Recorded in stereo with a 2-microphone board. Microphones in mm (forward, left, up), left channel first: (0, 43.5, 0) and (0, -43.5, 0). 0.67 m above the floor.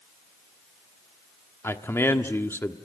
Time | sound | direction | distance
1.6 | a man speaking | 30° left (ahead or behind) | 1.3 m